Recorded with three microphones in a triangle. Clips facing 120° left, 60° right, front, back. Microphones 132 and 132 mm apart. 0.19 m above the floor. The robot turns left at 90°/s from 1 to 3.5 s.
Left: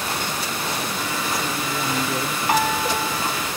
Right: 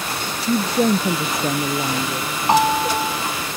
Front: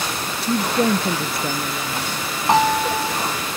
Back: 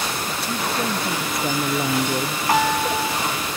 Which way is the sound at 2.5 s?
40° right.